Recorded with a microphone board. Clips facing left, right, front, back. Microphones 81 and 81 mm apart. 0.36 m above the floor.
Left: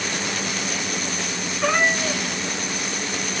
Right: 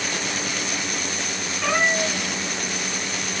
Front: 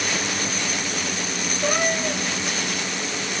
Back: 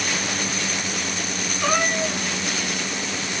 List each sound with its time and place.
1.6 s a cat meowing: 160° left, 1.5 m